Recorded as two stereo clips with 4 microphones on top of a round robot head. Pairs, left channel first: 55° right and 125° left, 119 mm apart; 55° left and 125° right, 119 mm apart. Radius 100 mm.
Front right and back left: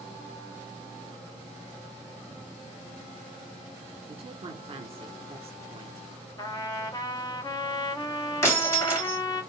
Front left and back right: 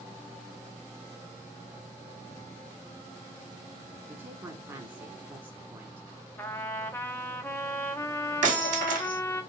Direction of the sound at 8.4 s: 120° right.